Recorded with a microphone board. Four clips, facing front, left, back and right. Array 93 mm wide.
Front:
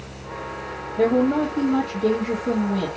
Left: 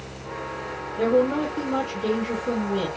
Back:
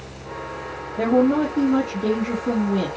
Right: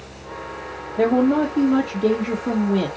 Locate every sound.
1.0 s a man speaking: 100° right, 2.5 m